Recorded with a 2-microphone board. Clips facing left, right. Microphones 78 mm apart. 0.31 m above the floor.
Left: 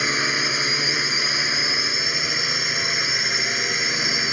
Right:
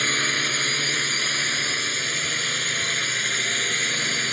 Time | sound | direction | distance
0.0 | a drone | 10° left (ahead or behind) | ?